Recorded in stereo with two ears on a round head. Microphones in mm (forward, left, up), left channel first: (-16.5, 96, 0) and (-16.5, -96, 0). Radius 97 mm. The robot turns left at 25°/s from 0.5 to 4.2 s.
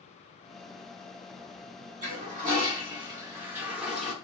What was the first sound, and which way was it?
A toilet flushing, 125° right.